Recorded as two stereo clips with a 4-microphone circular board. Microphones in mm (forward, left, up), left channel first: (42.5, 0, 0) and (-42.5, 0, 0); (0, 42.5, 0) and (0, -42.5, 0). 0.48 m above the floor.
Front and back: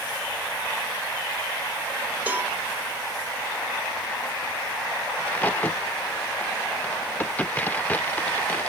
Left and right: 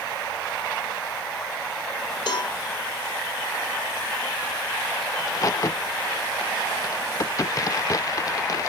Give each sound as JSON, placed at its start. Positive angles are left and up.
{"t": 2.3, "sound": "a cowbell", "azimuth_deg": 110, "distance_m": 1.9}
{"t": 5.2, "sound": "a crack", "azimuth_deg": 65, "distance_m": 0.6}